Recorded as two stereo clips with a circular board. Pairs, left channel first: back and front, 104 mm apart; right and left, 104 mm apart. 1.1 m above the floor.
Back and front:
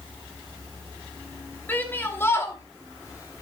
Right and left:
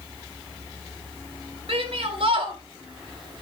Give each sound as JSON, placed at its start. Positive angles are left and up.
{"t": 1.7, "sound": "a shout", "azimuth_deg": 110, "distance_m": 3.0}